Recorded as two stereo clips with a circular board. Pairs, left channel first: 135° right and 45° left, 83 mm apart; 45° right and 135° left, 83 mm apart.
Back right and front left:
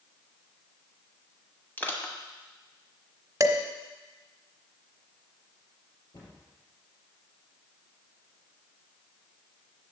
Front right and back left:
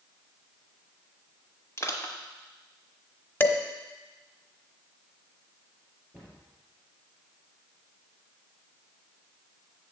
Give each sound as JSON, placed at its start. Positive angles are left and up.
{"t": 1.8, "sound": "crushing", "azimuth_deg": -80, "distance_m": 1.2}
{"t": 3.4, "sound": "dishes clattering", "azimuth_deg": 15, "distance_m": 0.9}
{"t": 6.1, "sound": "a cupboard door", "azimuth_deg": -140, "distance_m": 4.0}